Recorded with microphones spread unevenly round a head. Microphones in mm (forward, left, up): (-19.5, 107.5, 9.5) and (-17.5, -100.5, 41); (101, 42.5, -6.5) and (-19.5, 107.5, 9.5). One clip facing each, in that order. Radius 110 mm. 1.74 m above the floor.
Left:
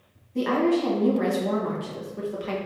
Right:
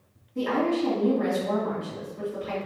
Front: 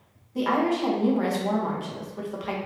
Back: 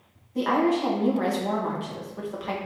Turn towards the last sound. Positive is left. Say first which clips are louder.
# left 3 dB, back 1 dB
turn(degrees=60)